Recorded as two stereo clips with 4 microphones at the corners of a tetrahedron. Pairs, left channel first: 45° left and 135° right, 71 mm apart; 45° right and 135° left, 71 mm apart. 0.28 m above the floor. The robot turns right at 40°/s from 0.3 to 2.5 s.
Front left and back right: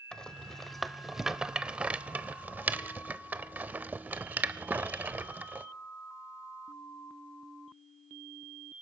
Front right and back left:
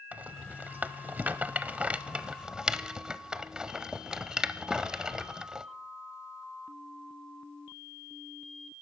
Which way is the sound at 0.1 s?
110° left.